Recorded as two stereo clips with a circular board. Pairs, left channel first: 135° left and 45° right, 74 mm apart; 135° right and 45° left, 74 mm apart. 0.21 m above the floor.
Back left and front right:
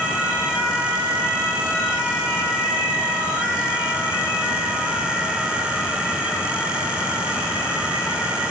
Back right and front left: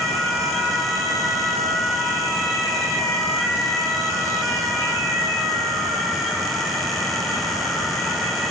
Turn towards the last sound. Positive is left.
No sound to turn to.